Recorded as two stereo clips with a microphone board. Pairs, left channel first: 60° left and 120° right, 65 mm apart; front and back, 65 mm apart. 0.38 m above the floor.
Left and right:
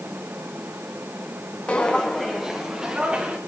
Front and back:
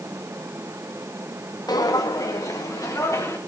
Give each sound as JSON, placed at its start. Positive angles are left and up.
{"t": 1.7, "sound": "footsteps", "azimuth_deg": -10, "distance_m": 1.3}